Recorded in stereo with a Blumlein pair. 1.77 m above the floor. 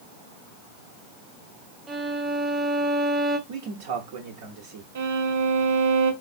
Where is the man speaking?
55° right, 0.8 m.